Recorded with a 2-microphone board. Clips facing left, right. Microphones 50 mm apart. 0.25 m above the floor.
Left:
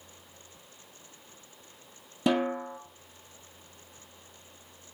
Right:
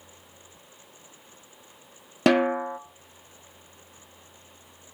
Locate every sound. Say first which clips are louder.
2.3 s a snare drum: right 6 dB; 75° right (ahead or behind), 1.0 m